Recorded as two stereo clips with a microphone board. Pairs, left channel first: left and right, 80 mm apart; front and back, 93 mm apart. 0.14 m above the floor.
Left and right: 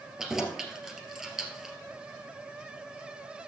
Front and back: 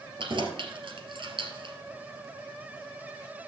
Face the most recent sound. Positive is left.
turn(degrees=-175)